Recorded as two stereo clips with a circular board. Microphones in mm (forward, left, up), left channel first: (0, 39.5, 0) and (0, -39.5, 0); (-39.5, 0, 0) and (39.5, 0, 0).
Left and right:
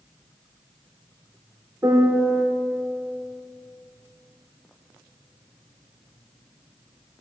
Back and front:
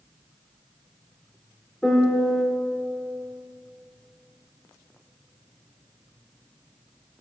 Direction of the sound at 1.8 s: 100° right.